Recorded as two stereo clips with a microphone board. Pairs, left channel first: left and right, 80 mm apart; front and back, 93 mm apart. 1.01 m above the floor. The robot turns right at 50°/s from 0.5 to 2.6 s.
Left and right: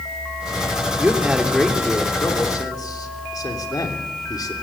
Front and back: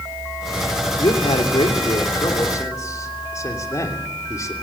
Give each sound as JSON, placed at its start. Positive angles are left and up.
{"t": 1.0, "sound": "a man speaking", "azimuth_deg": -25, "distance_m": 3.0}